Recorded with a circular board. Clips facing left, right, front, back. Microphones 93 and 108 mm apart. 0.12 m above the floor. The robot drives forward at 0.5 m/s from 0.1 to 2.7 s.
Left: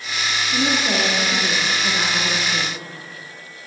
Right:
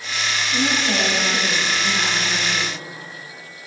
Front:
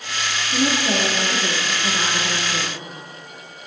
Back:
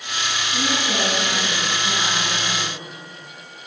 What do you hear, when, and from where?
0.5 s a woman speaking: 25° left, 3 m; by 2.8 s 40° left, 2.5 m